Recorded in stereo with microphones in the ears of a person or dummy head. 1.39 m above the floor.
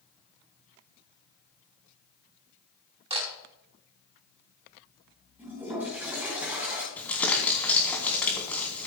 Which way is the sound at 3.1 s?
30° right (ahead or behind).